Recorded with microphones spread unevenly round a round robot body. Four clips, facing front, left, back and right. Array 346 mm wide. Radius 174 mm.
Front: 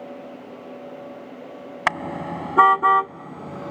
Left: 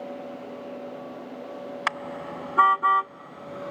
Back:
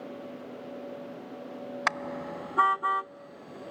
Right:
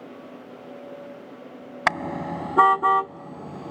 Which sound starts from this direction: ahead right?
A car horn, at 1.9 s.